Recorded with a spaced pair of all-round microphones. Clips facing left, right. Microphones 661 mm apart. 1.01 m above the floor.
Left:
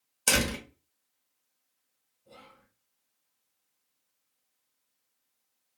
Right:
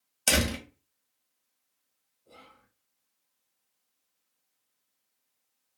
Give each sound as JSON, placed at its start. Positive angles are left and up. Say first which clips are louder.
{"t": 0.3, "sound": "a door slam", "louder": "right 1 dB", "side_deg": -10, "distance_m": 0.6}
{"t": 2.2, "sound": "whispering", "louder": "left 1 dB", "side_deg": 25, "distance_m": 0.7}